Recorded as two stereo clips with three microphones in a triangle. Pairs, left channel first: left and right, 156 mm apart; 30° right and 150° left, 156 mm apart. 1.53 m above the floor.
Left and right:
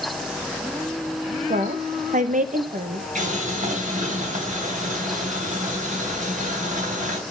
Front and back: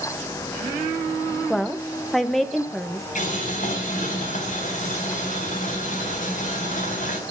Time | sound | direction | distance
1.5 | a woman speaking | 120° right | 1.0 m
3.1 | boiling | 60° right | 3 m